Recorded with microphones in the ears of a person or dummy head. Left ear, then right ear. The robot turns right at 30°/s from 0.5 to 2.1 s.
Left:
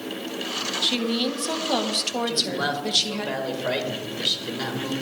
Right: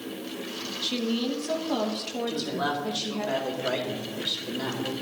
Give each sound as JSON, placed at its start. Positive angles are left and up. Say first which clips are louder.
{"t": 0.8, "sound": "a woman speaking", "louder": "left 4 dB", "azimuth_deg": 15, "distance_m": 1.2}
{"t": 2.3, "sound": "a man speaking", "louder": "left 4 dB", "side_deg": 25, "distance_m": 2.0}